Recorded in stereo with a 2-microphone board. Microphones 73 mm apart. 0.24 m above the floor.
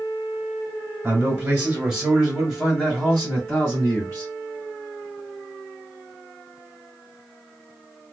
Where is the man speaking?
20° right (ahead or behind), 1.6 m; by 4.3 s 35° left (ahead or behind), 2 m.